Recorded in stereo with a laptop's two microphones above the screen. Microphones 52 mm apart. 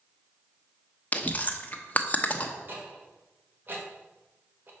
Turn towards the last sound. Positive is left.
turn(degrees=-40)  # may be behind; listen again after turning